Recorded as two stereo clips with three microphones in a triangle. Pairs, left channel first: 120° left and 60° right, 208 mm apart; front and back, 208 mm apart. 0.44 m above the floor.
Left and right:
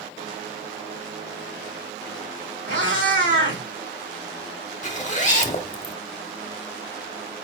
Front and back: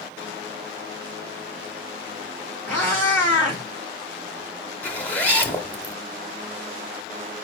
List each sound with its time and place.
2.7 s a cat meowing: 80° right, 3 m
4.8 s a zipper: 80° left, 0.9 m